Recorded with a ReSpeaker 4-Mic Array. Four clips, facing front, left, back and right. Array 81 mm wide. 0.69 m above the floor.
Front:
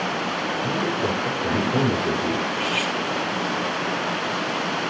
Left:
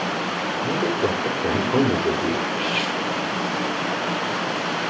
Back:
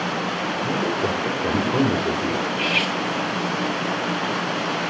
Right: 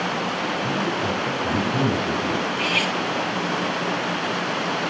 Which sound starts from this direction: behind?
Cutlery clinking, at 2.5 s.